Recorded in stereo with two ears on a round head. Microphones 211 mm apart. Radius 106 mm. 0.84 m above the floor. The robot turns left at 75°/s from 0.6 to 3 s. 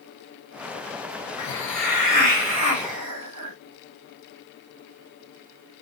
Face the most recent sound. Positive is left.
turn(degrees=-90)